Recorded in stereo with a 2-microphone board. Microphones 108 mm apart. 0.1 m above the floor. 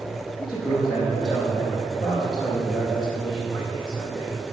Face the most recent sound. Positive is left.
turn(degrees=40)  # may be behind; listen again after turning